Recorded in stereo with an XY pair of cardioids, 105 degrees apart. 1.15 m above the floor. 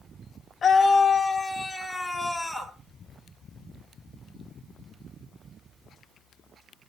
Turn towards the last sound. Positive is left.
turn(degrees=-5)